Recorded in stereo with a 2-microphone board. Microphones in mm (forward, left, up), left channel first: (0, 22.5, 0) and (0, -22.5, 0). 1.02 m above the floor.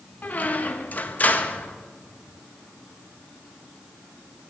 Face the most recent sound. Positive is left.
turn(degrees=40)  # may be behind; listen again after turning